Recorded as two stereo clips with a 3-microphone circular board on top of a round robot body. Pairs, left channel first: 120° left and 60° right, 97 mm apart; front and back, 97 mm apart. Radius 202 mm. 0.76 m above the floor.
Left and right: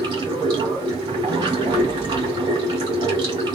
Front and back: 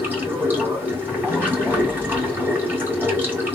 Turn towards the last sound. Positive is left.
turn(degrees=-110)